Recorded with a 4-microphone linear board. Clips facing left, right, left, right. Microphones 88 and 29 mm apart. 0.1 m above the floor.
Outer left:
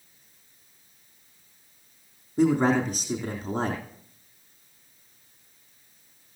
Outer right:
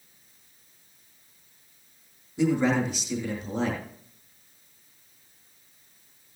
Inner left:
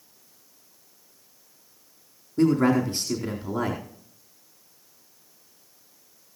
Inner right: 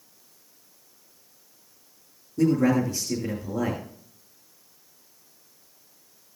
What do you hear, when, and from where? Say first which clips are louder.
2.4 s a man speaking: outer left 2 dB, inner left 1 dB; 40° left (ahead or behind), 4 m